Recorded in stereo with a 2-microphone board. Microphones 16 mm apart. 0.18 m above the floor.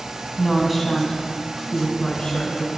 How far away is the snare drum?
I don't hear a snare drum.